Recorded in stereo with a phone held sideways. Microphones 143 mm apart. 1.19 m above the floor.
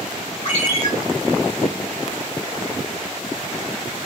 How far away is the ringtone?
About 3 m.